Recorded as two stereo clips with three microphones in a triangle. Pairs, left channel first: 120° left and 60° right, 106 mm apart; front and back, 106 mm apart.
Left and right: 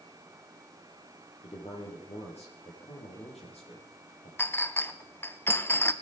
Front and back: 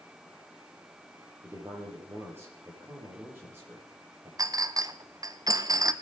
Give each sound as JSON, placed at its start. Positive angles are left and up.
{"t": 1.4, "sound": "a man speaking", "azimuth_deg": 110, "distance_m": 6.0}
{"t": 4.4, "sound": "a clink", "azimuth_deg": 170, "distance_m": 0.7}